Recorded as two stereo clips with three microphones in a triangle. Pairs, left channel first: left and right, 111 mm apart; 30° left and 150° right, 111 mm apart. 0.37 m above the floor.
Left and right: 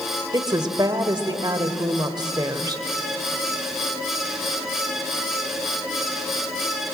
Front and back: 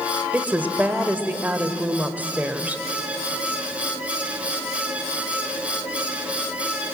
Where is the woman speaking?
85° right, 1.4 m.